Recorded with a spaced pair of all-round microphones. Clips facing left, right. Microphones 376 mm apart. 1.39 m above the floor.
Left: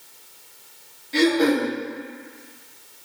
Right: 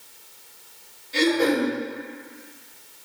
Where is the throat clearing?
70° left (ahead or behind), 1.4 m.